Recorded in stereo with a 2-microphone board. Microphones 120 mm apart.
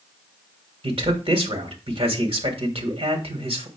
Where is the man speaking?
55° right (ahead or behind), 1.8 m.